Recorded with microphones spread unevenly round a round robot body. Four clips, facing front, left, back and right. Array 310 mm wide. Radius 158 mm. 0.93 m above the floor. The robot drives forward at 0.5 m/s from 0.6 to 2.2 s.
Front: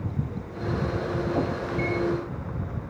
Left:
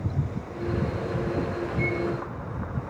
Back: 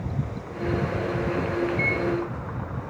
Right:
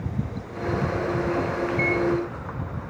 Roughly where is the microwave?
Ahead right.